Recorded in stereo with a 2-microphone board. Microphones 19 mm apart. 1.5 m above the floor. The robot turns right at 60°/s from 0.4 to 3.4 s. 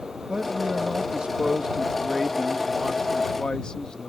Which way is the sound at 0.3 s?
125° right.